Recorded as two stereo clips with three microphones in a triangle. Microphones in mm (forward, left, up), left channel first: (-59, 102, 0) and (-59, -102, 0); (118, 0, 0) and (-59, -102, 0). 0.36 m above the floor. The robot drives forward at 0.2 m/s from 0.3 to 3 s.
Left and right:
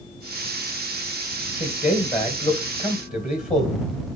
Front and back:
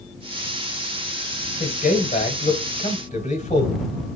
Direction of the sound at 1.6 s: 55° left.